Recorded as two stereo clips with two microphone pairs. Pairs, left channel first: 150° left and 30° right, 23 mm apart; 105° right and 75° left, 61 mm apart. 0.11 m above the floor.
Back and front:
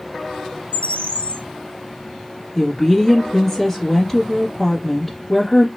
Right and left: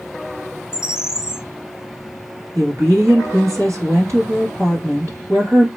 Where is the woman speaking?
75° left, 2.5 m.